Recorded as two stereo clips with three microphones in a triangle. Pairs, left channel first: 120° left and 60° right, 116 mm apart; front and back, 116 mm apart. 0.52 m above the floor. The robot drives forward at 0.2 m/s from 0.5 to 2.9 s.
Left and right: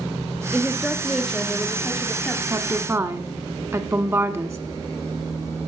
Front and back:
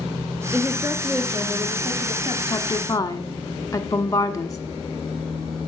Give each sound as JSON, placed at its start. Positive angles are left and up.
{"t": 0.5, "sound": "a woman speaking", "azimuth_deg": -135, "distance_m": 0.7}
{"t": 2.5, "sound": "a woman speaking", "azimuth_deg": -15, "distance_m": 1.0}